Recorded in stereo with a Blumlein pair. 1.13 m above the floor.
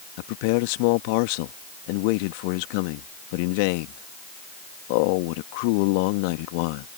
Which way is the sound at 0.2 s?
45° left.